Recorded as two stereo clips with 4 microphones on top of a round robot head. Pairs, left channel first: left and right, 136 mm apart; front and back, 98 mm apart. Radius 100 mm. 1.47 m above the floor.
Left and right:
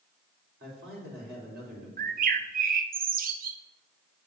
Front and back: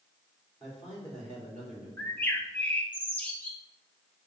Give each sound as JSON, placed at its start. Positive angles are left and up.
{"t": 0.6, "sound": "a man speaking", "azimuth_deg": -90, "distance_m": 4.0}
{"t": 2.0, "sound": "a bird", "azimuth_deg": -75, "distance_m": 0.6}